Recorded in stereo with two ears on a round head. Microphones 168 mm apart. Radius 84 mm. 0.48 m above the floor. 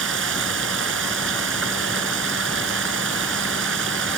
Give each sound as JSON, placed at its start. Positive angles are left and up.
{"t": 0.0, "sound": "running water", "side_deg": -75}